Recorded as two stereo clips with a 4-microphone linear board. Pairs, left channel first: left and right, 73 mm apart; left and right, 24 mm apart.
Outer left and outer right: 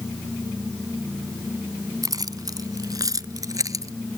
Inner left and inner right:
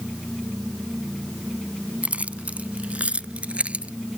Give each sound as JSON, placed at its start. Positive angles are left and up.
{"t": 2.0, "sound": "keys jangling", "side_deg": -65}